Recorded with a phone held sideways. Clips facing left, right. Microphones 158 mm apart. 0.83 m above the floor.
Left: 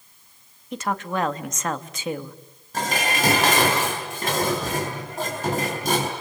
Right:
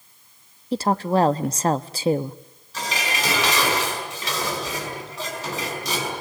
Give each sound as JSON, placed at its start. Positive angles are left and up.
{"t": 0.7, "sound": "a woman speaking", "side_deg": -35, "distance_m": 0.9}
{"t": 2.7, "sound": "dishes clattering", "side_deg": 50, "distance_m": 5.0}